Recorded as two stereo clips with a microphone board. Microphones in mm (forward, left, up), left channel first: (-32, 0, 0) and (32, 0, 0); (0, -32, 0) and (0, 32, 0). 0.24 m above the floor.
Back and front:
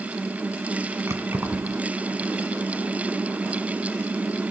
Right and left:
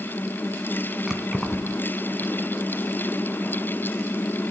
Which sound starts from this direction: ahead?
Keys jangling, at 1.1 s.